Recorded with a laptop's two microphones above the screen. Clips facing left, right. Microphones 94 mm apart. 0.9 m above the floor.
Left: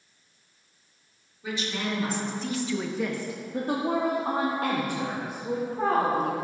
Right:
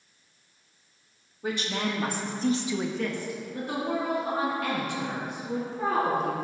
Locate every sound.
1.4 s a woman speaking: 50° right (ahead or behind), 2 m; by 6.3 s 50° left (ahead or behind), 5 m